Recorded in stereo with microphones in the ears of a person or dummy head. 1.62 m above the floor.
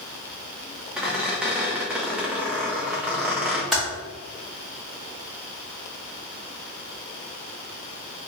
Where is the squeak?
5° right (ahead or behind), 0.8 m.